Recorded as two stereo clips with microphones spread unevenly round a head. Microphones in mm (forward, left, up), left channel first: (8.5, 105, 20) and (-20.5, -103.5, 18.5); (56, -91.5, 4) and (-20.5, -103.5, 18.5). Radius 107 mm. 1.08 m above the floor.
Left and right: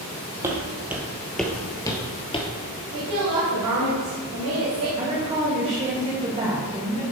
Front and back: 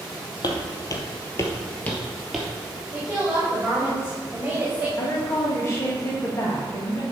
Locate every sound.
0.4 s footsteps: 25° right, 1.7 m; by 2.5 s 130° left, 1.2 m
2.9 s a woman speaking: 95° right, 2.5 m
5.0 s a woman speaking: 35° right, 1.6 m